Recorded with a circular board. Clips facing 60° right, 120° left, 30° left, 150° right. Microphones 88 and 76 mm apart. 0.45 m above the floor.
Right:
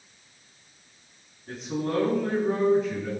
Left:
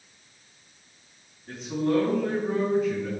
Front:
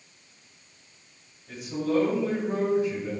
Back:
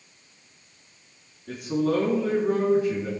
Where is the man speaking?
140° right, 5 m.